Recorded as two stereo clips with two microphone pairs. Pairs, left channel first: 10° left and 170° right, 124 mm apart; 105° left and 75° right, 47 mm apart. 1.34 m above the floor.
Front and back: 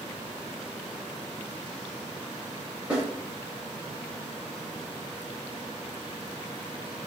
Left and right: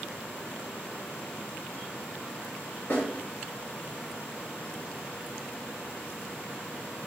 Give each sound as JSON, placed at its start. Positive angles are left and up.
{"t": 2.9, "sound": "a snare drum", "azimuth_deg": 115, "distance_m": 1.9}